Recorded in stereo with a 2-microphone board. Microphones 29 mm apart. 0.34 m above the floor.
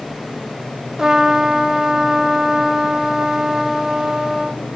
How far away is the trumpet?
About 0.7 m.